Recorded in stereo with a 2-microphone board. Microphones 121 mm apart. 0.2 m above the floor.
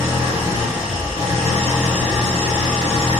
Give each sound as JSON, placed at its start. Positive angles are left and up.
{"t": 0.0, "sound": "an engine running", "side_deg": 50, "distance_m": 1.6}